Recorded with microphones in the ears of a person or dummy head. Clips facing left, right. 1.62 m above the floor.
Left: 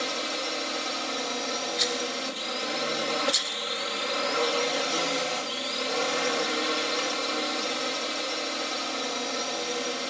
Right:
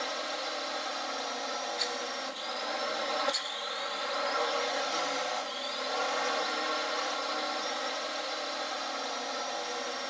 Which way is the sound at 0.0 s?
50° left (ahead or behind).